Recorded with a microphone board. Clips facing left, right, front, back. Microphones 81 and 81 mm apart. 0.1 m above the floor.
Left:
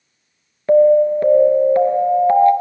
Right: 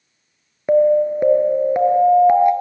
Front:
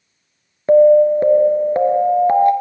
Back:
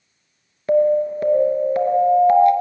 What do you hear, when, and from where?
0.7 s an alarm: 30° right, 1.0 m